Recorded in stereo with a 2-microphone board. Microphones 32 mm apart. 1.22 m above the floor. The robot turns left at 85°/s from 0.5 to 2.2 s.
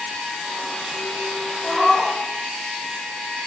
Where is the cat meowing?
30° left, 5 m; by 2.2 s 20° right, 5 m.